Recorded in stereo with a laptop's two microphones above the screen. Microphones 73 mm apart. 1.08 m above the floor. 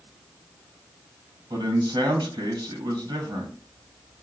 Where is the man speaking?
80° right, 1.3 m.